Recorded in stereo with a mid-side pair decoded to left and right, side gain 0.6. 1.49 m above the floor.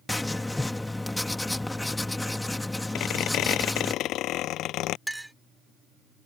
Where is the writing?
10° left.